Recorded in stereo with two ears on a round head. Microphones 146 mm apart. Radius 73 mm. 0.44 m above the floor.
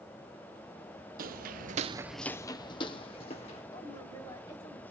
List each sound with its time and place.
1.2 s footsteps: 60° right (ahead or behind), 1.0 m; by 3.6 s 35° left (ahead or behind), 2 m
3.7 s a woman speaking: 25° left (ahead or behind), 4 m